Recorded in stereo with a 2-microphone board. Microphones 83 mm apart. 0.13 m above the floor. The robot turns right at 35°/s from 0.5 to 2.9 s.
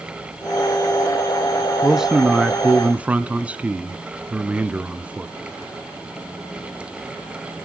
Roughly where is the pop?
I don't hear a pop.